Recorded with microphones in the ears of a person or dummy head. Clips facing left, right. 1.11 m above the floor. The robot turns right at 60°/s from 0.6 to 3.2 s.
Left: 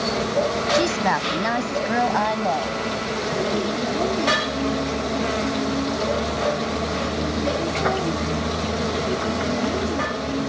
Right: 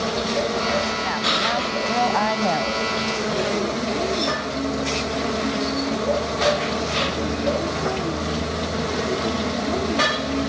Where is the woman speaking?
95° left; by 2.8 s 145° right.